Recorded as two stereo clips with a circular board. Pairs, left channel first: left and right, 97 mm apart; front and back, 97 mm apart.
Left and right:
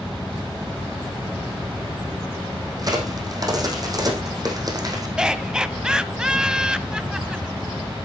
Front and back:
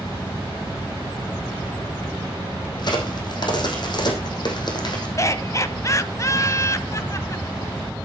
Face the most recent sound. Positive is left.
turn(degrees=-15)